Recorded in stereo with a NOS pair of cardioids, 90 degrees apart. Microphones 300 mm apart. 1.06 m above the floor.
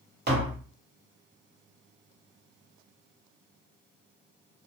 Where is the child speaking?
No child speaking in this recording.